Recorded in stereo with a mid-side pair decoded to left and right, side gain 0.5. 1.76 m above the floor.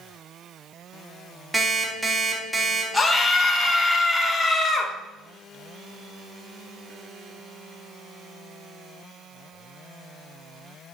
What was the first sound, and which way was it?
An alarm clock, 10° right.